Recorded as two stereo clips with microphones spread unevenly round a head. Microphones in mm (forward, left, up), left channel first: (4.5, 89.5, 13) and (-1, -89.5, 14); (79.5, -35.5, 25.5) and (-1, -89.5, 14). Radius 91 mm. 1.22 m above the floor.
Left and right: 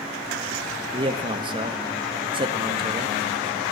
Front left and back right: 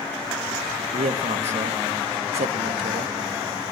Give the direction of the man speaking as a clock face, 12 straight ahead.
5 o'clock.